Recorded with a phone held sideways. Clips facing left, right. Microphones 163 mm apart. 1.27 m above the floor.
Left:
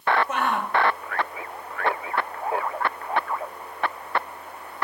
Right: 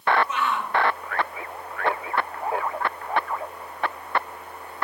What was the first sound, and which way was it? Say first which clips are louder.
A shout: left 2 dB; 50° left (ahead or behind).